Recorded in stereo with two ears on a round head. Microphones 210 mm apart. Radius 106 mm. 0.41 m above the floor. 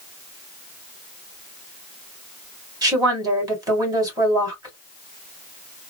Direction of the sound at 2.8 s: 15° right (ahead or behind).